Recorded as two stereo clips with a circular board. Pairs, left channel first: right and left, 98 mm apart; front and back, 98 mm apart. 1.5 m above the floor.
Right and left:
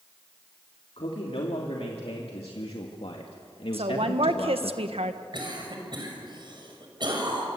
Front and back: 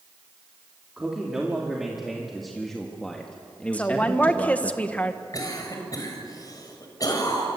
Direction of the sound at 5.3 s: 50° left.